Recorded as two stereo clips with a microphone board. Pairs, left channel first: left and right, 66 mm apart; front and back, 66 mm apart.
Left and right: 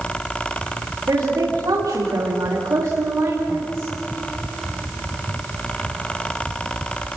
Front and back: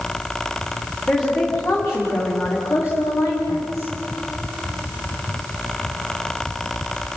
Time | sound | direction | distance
1.1 | a woman speaking | 60° right | 8.5 m